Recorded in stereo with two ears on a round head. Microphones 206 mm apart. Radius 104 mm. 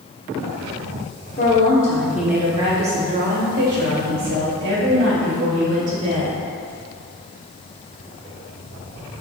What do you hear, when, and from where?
1.4 s a woman speaking: 35° left (ahead or behind), 1.2 m; by 6.4 s 60° right (ahead or behind), 4.5 m